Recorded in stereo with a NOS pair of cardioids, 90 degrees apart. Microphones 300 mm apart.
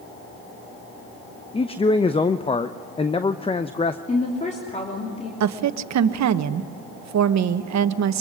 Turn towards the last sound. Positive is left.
turn(degrees=-65)